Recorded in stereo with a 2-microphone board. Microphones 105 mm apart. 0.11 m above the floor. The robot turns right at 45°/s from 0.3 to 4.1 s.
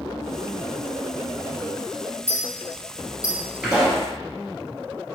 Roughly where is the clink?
Right.